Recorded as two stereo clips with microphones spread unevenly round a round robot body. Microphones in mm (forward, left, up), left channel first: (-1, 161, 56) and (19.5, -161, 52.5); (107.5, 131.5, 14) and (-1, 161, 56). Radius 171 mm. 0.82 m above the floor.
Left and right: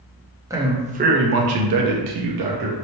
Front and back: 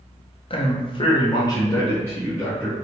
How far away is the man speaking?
About 0.8 m.